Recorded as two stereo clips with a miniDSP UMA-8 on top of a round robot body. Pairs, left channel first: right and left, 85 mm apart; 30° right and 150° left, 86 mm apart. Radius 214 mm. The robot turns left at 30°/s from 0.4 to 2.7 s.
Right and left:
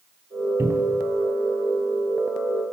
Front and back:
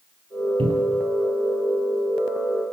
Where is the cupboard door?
155° left, 5 m; by 1.1 s 140° left, 5 m.